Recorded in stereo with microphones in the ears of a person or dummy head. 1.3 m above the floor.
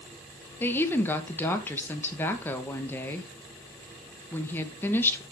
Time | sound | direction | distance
0.6 | a woman speaking | 15° left (ahead or behind) | 1.1 m